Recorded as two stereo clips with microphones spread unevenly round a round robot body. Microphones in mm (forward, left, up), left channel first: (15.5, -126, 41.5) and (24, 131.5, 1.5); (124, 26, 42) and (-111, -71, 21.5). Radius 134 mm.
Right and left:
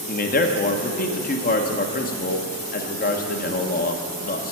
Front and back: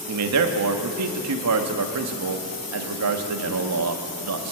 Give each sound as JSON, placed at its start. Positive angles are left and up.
{"t": 0.1, "sound": "a man speaking", "azimuth_deg": -155, "distance_m": 1.0}